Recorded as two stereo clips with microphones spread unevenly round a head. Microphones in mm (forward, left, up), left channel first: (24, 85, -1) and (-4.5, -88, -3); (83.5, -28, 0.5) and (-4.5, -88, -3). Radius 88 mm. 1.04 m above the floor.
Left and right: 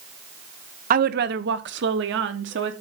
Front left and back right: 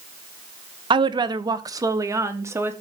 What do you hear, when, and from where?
0.9 s a woman speaking: 125° right, 0.9 m; by 2.7 s 80° right, 1.9 m